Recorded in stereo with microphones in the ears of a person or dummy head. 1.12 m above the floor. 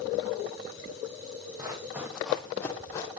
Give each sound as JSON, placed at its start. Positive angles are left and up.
{"t": 1.6, "sound": "running footsteps", "side_deg": -20, "distance_m": 2.0}